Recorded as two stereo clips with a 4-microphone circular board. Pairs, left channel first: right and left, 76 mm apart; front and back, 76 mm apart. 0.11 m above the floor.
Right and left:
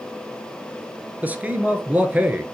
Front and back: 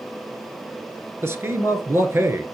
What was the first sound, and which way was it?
A man speaking, 150° left.